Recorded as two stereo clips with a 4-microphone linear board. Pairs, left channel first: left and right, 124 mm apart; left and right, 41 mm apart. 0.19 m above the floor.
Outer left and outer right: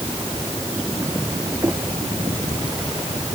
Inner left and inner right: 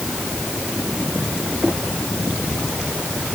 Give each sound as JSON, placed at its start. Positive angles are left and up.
{"t": 1.6, "sound": "knocking", "side_deg": -25}